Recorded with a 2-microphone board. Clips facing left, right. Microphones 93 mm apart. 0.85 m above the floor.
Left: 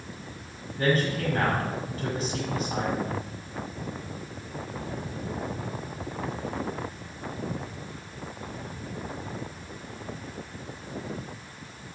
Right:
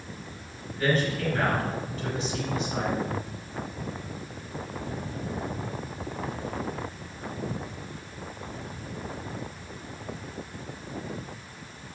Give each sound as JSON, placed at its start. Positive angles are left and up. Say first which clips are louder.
{"t": 0.8, "sound": "a man speaking", "louder": "left 1 dB", "side_deg": 35, "distance_m": 5.0}